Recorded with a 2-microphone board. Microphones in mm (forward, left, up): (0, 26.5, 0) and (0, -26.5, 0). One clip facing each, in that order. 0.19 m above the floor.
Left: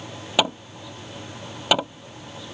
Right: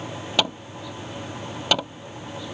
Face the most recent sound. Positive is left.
turn(degrees=10)  # may be behind; listen again after turning